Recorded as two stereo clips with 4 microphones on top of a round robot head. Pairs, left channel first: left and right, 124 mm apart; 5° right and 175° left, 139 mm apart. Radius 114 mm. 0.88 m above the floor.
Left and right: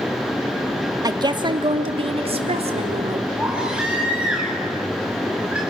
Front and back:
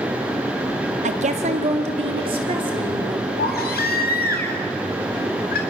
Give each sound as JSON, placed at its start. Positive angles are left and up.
{"t": 1.0, "sound": "a woman speaking", "azimuth_deg": -150, "distance_m": 1.8}
{"t": 3.4, "sound": "a baby crying", "azimuth_deg": -5, "distance_m": 3.5}